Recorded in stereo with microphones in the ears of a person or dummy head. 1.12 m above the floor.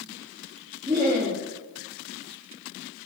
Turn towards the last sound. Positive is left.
turn(degrees=-15)  # may be behind; listen again after turning